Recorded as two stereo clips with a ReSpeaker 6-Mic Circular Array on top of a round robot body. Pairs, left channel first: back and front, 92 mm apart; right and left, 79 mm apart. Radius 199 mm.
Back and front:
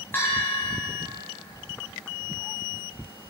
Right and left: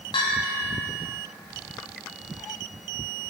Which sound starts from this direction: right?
A bell, at 0.1 s.